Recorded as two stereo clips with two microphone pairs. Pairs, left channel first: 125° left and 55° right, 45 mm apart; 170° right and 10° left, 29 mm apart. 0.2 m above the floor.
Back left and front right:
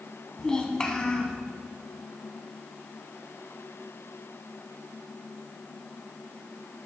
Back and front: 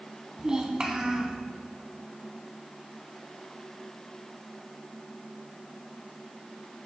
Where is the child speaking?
55° left, 0.7 m.